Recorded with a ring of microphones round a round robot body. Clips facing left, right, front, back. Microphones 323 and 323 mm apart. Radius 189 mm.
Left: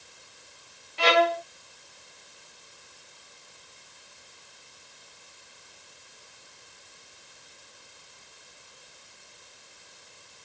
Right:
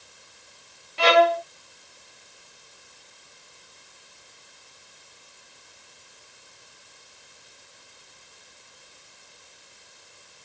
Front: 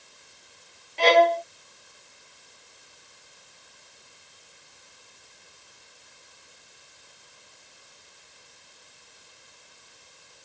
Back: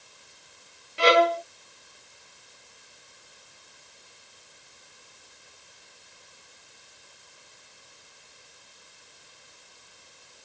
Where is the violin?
100° right.